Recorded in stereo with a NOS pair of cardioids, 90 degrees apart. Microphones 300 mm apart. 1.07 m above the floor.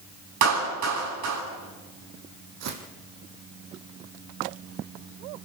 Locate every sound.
0.4 s a clap: 65° right, 9 m
2.6 s footsteps: 65° right, 3.5 m